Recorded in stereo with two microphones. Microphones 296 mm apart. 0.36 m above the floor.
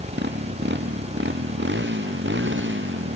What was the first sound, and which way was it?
A motorcycle, 35° right (ahead or behind).